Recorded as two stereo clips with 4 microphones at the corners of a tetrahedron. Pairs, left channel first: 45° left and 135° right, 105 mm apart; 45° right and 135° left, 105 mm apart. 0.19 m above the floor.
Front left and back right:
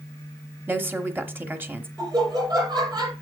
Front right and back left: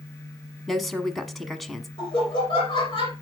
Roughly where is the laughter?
Right.